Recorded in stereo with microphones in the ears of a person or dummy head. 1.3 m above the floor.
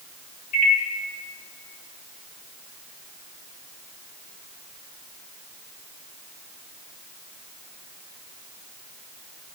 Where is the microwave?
45° left (ahead or behind), 1.1 m.